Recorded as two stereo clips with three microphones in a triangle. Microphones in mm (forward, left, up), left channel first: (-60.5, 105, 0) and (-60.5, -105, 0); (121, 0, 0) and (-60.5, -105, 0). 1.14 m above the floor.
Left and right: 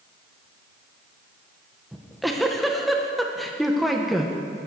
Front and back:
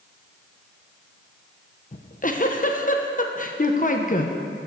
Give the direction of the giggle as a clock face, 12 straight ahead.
12 o'clock.